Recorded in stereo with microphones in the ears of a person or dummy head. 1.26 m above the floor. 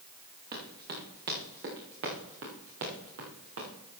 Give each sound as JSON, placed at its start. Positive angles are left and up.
{"t": 0.5, "sound": "running footsteps", "side_deg": -50, "distance_m": 5.0}